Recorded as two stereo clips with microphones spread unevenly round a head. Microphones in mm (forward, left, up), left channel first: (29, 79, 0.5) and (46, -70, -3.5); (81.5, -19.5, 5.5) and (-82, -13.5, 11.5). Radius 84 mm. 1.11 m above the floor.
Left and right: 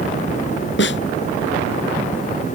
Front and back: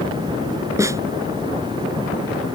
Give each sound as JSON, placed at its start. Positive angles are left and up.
{"t": 0.8, "sound": "a snare drum", "azimuth_deg": 105}